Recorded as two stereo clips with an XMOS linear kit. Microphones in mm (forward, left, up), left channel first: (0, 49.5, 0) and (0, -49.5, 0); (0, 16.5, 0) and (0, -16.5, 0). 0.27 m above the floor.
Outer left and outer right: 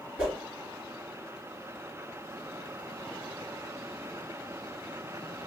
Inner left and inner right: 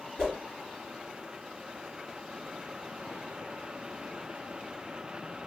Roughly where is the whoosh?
Centre.